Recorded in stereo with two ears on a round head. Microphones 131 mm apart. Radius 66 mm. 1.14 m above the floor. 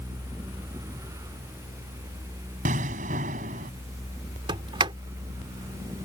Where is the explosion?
60° right (ahead or behind).